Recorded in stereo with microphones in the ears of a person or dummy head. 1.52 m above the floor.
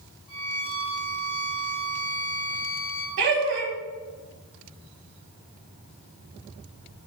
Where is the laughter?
65° right (ahead or behind), 1.0 m.